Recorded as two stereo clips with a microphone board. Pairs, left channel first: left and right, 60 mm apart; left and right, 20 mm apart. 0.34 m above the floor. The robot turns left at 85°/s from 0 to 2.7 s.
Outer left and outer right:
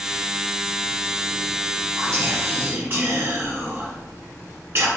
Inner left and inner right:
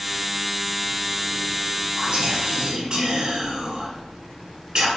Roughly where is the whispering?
Ahead right.